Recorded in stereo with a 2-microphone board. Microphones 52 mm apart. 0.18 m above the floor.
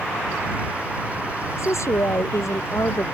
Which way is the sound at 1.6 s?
70° left (ahead or behind).